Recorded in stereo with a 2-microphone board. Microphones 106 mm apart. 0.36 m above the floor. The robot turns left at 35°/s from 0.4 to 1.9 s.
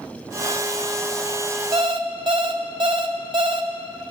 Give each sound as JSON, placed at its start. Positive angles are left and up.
{"t": 1.7, "sound": "an alarm clock", "side_deg": -45, "distance_m": 0.7}